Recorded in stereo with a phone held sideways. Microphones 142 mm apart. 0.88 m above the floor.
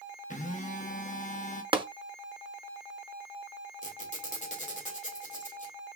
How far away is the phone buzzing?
About 1.0 m.